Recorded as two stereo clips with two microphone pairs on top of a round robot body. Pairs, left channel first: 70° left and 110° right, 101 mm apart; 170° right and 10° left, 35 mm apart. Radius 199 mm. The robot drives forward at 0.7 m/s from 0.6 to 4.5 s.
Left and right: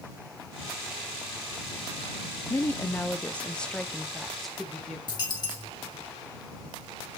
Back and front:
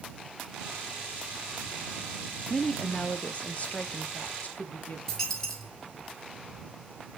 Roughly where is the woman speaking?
Left.